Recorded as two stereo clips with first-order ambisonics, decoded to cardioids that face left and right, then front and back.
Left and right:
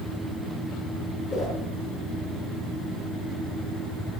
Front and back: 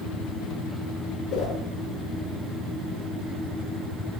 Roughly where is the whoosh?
Ahead left.